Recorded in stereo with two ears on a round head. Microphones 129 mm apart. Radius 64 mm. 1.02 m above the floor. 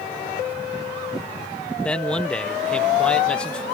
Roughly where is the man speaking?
Centre.